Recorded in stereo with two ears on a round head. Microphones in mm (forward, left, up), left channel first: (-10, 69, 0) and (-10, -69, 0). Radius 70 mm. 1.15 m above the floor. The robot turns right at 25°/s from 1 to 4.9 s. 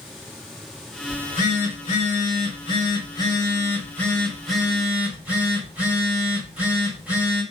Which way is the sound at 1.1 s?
95° left.